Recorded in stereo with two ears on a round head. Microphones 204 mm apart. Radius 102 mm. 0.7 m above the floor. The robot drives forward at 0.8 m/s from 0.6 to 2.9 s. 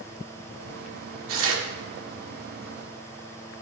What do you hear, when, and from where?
1.3 s tearing paper: 65° right (ahead or behind), 2 m